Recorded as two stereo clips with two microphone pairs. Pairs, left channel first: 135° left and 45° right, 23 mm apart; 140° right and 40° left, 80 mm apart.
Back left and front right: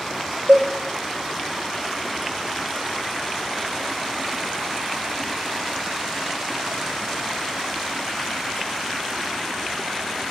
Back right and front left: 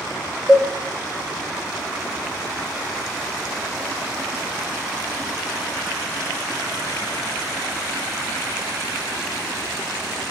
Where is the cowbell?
45° right, 0.9 m.